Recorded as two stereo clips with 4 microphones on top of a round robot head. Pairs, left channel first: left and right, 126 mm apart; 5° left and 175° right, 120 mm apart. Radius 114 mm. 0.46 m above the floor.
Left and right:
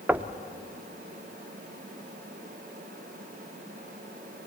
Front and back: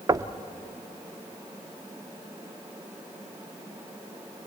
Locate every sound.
0.1 s knocking: 155° right, 0.8 m